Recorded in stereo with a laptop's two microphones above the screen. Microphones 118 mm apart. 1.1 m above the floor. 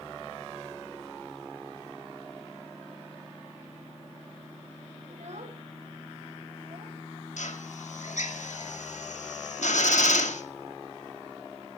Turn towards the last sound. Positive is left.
turn(degrees=85)